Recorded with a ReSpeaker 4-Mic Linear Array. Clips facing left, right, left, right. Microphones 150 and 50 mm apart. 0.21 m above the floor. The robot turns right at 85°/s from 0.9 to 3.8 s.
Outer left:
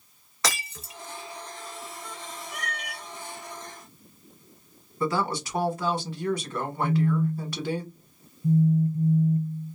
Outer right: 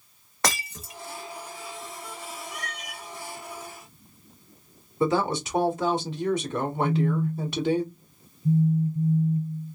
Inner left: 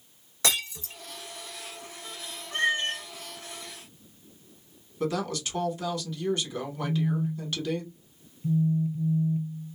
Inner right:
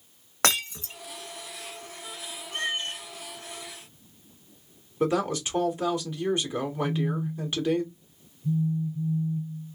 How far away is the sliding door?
I don't hear a sliding door.